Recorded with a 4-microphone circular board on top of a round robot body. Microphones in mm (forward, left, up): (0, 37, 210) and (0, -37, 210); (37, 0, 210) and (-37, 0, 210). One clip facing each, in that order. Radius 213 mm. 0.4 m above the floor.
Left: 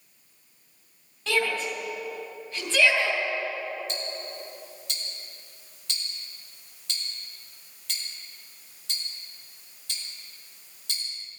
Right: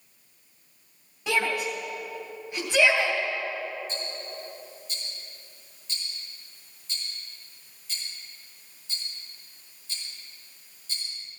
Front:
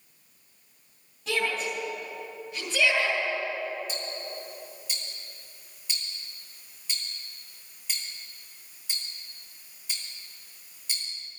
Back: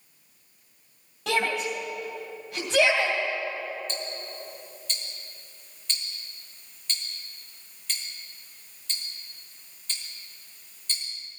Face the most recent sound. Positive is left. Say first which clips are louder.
# left 1 dB, even
turn(degrees=80)